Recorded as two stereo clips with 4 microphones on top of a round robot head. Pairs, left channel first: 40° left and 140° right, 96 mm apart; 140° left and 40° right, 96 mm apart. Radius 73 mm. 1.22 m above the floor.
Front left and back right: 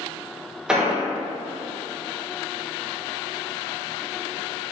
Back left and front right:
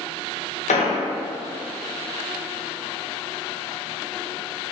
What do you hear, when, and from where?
0.7 s an explosion: 140° left, 0.6 m